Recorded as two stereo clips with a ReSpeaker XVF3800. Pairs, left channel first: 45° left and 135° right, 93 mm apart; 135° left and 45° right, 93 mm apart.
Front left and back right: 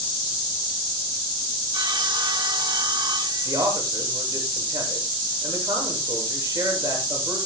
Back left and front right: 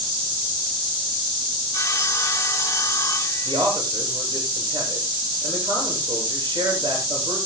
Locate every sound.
1.7 s sawing: 170° right, 1.5 m
3.5 s a man speaking: 80° right, 8 m